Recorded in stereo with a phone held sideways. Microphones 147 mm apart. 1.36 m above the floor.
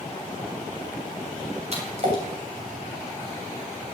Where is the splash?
50° right (ahead or behind), 7 m.